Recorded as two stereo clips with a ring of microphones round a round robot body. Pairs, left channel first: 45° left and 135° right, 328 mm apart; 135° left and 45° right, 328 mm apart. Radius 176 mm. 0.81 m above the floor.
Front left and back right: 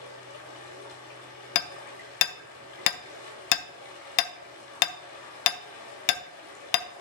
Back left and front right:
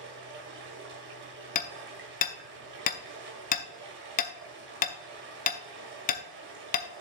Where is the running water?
15° left, 1.8 m.